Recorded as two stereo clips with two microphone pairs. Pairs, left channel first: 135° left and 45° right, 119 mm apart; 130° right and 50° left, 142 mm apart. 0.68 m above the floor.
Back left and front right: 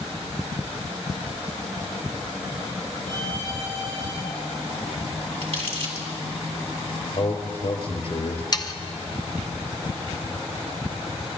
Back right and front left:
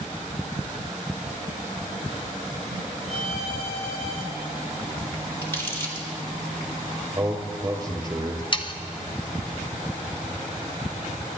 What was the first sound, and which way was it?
A violin, 95° right.